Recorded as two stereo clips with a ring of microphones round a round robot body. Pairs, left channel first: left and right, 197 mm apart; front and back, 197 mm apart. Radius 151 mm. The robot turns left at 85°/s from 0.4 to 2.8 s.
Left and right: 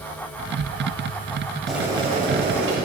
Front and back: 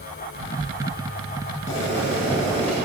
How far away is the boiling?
About 2 m.